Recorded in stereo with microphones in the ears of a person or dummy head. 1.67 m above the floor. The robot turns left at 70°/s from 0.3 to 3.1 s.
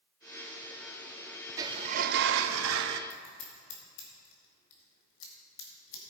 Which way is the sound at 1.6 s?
20° right.